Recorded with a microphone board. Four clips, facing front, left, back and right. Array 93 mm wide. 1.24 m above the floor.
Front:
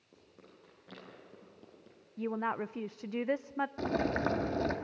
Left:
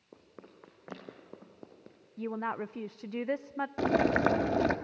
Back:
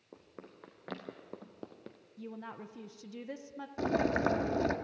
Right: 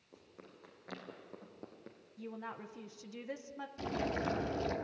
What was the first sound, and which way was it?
Running footsteps, 140° left.